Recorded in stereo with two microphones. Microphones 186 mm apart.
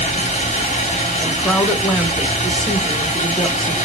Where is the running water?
40° left (ahead or behind), 1.1 m.